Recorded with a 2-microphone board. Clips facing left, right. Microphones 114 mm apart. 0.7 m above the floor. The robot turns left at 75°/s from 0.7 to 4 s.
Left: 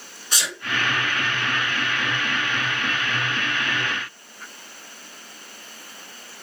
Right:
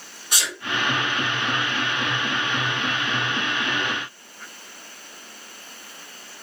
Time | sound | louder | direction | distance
0.3 | a sneeze | even | 10° right (ahead or behind) | 1.6 m